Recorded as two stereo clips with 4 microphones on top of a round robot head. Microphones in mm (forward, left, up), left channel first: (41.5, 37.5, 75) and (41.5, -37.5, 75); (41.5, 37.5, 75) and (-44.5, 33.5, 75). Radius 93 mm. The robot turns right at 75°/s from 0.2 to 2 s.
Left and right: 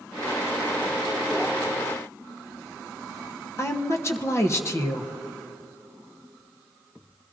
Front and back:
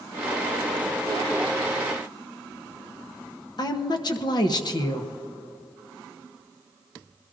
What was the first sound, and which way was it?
A woman speaking, 40° left.